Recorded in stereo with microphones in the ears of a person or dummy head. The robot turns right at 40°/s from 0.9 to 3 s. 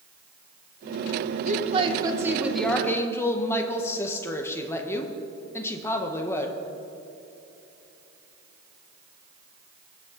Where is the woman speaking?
45° right, 1.4 m; by 6.6 s 20° left, 1.4 m.